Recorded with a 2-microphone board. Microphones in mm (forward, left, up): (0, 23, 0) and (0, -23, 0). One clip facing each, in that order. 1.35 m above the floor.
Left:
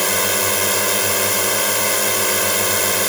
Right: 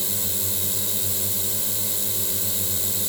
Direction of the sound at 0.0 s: 75° left (ahead or behind).